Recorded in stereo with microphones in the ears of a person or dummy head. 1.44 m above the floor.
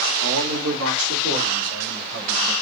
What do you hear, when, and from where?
0.2 s a man speaking: 80° right, 1.3 m; by 2.5 s 70° right (ahead or behind), 4.5 m